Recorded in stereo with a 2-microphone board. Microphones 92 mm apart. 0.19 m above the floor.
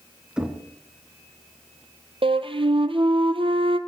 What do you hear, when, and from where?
0.4 s knocking: 10° right (ahead or behind), 1.9 m
2.2 s a flute: 75° right (ahead or behind), 1.0 m